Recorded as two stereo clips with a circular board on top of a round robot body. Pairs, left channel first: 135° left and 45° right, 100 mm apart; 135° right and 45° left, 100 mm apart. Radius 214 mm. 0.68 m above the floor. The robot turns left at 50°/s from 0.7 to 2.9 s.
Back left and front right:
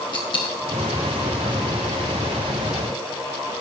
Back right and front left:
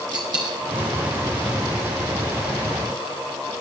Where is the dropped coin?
90° left, 1.3 m.